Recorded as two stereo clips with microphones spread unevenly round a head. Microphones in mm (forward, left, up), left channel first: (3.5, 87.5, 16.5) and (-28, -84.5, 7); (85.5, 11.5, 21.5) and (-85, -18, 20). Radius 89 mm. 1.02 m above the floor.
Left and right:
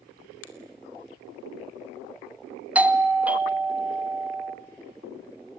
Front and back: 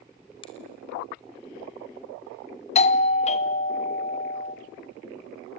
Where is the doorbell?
25° right, 1.1 m.